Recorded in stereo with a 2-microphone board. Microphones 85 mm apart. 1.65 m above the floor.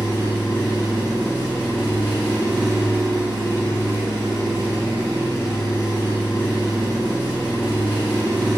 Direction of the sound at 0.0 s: 25° right (ahead or behind).